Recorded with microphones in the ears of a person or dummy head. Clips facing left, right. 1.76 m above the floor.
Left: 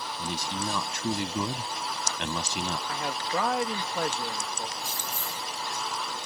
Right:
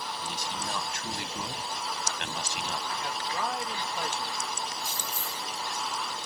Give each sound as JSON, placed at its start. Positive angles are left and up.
{"t": 0.2, "sound": "a man speaking", "side_deg": 75}
{"t": 2.9, "sound": "a man speaking", "side_deg": 65}
{"t": 4.8, "sound": "keys jangling", "side_deg": 45}